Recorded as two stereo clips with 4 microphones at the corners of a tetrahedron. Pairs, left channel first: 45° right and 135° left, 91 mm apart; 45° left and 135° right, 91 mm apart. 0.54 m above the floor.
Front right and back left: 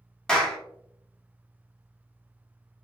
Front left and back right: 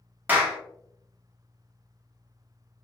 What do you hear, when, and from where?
0.3 s a clap: 110° right, 0.7 m